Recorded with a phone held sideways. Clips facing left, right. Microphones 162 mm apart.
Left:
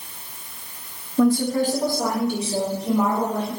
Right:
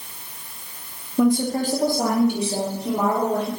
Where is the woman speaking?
5° right (ahead or behind), 0.5 m; by 3.5 s 60° right (ahead or behind), 2.5 m.